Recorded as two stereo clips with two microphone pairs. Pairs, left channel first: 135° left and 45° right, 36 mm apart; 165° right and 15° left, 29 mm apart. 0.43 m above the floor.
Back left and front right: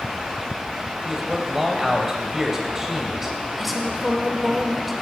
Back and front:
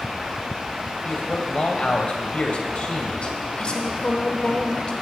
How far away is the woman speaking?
About 1.3 m.